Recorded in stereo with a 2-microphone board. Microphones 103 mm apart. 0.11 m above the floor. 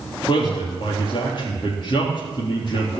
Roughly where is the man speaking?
Left.